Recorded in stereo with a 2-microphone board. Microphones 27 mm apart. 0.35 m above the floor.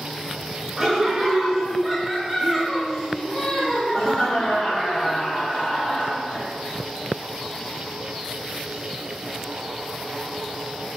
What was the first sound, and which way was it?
Laughter, 15° right (ahead or behind).